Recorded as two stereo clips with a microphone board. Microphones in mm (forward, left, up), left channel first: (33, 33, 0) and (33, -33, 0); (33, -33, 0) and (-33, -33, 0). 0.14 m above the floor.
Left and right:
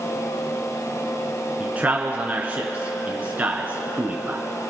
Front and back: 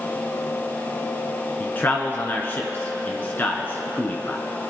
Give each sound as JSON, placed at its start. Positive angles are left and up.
{"t": 1.6, "sound": "a man speaking", "azimuth_deg": -40, "distance_m": 1.3}